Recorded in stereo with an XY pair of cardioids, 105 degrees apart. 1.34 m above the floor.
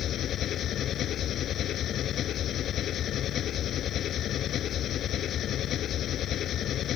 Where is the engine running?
65° left.